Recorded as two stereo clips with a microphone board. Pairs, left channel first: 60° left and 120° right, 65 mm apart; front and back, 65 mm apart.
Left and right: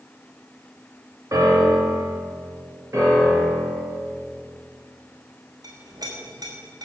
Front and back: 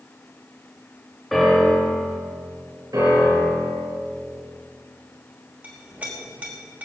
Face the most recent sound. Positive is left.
turn(degrees=-115)